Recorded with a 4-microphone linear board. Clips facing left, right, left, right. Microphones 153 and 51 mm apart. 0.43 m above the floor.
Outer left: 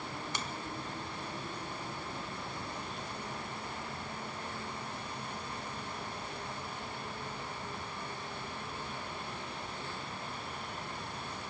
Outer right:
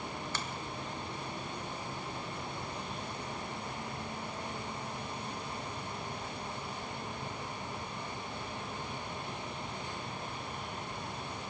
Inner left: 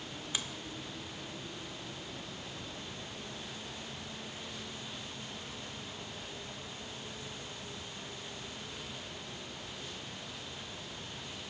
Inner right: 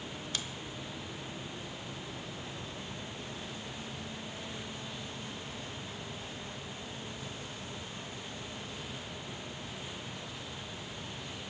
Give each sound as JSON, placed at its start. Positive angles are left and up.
{"t": 0.3, "sound": "a finger snap", "side_deg": 15, "distance_m": 1.1}